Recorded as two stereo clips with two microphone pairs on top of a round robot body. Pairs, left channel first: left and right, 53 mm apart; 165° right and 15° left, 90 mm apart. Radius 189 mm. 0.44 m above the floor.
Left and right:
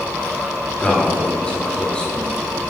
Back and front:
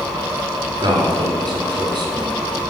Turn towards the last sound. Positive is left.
turn(degrees=25)